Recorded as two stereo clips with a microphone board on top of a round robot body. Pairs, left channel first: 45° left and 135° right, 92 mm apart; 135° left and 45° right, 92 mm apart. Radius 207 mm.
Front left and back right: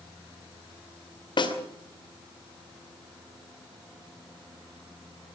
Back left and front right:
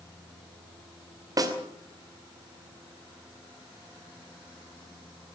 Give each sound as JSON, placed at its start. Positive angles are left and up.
{"t": 1.4, "sound": "a snare drum", "azimuth_deg": 5, "distance_m": 2.5}